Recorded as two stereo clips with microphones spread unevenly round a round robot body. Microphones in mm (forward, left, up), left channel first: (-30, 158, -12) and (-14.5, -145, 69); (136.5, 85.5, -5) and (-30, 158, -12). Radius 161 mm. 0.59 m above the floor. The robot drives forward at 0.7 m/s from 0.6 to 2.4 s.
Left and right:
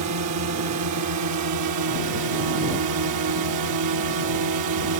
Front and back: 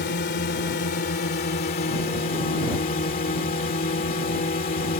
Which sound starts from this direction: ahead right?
A drone, at 0.0 s.